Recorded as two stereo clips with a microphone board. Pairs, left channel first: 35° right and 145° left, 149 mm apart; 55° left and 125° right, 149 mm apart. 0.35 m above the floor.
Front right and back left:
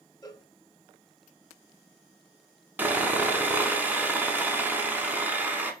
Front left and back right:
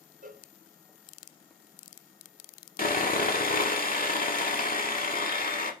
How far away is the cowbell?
About 0.6 m.